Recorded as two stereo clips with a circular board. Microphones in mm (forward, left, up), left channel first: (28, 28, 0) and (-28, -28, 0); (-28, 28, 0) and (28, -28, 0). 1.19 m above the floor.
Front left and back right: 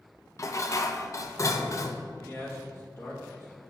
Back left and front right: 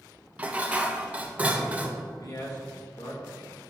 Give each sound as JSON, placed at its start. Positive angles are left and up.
{"t": 0.4, "sound": "dishes clattering", "azimuth_deg": 20, "distance_m": 0.5}
{"t": 2.2, "sound": "a man speaking", "azimuth_deg": 100, "distance_m": 1.9}